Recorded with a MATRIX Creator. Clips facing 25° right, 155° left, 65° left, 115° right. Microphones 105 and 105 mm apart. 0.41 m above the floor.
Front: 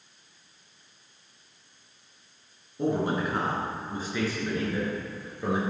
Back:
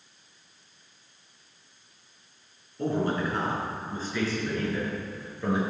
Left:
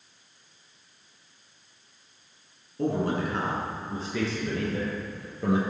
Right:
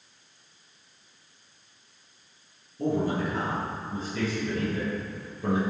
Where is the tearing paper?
I don't hear tearing paper.